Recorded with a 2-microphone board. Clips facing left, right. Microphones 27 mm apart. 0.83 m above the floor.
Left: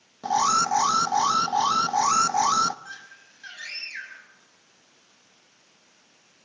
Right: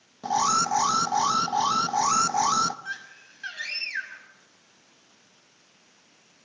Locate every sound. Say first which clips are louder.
0.2 s an alarm: left 2 dB; 10° left (ahead or behind), 0.8 m
2.9 s a scream: right 5 dB; 30° right (ahead or behind), 7 m